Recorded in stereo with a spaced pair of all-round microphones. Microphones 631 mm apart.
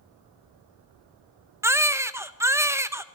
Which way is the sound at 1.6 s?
5° right (ahead or behind).